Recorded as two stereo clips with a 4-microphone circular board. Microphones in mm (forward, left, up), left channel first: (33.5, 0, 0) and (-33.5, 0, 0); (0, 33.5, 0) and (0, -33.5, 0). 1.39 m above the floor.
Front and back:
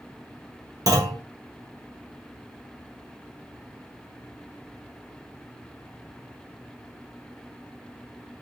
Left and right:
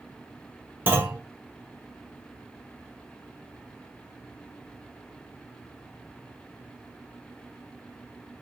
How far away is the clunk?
About 1.1 m.